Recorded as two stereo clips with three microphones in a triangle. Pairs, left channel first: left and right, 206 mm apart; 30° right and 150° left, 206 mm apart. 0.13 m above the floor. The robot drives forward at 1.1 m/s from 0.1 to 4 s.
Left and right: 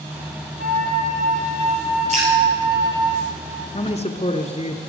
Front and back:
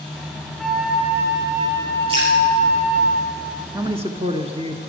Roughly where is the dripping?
Behind right.